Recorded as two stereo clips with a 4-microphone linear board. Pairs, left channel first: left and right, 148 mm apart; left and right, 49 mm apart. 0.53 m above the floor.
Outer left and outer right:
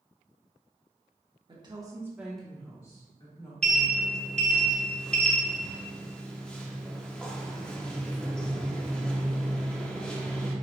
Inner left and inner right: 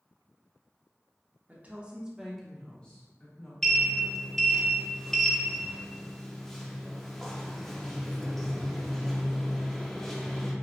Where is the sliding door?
5° left (ahead or behind), 0.7 m.